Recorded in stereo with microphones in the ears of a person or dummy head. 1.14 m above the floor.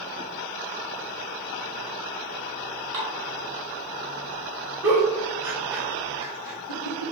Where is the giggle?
15° right (ahead or behind), 0.5 m.